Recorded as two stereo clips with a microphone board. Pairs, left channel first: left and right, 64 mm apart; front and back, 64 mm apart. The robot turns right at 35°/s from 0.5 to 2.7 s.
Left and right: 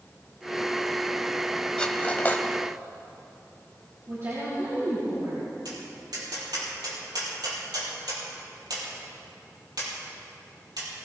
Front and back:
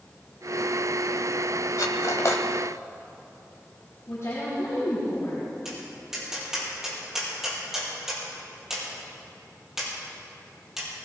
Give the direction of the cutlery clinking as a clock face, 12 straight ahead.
11 o'clock.